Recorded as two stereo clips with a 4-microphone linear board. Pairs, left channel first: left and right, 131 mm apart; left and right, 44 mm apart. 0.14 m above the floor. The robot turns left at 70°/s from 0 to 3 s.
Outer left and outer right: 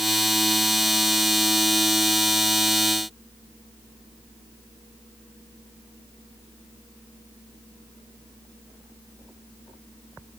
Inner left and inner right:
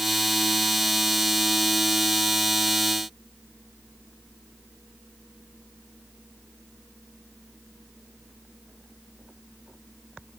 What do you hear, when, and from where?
Only background noise.